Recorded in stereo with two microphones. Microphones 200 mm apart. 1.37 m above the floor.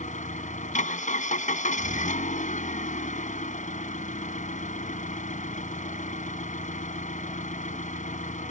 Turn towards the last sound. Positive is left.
turn(degrees=40)  # may be behind; listen again after turning